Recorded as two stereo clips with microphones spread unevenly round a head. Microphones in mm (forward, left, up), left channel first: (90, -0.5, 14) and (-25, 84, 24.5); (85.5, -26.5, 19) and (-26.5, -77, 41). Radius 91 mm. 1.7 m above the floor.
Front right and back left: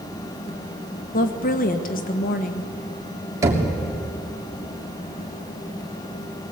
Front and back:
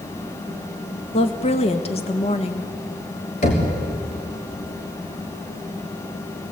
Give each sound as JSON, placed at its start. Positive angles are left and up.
{"t": 1.1, "sound": "a woman speaking", "azimuth_deg": -15, "distance_m": 1.6}
{"t": 3.4, "sound": "knocking", "azimuth_deg": 80, "distance_m": 3.0}